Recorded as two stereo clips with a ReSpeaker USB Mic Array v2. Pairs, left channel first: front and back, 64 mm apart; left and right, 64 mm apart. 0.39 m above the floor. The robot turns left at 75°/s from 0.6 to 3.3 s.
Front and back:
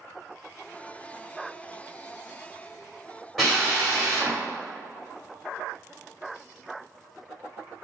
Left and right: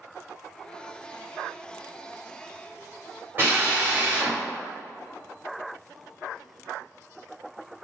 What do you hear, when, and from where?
3.4 s a drill: 85° right, 1.5 m